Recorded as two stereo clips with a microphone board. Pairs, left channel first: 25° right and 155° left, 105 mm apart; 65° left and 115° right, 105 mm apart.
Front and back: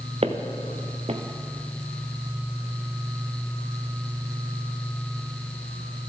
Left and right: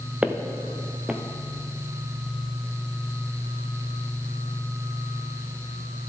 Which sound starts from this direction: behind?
Footsteps, at 0.2 s.